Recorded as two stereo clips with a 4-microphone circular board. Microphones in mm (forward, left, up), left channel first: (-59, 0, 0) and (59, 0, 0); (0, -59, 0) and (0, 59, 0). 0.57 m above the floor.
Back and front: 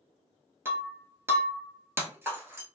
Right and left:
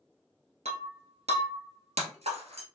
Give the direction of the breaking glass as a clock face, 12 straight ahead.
10 o'clock.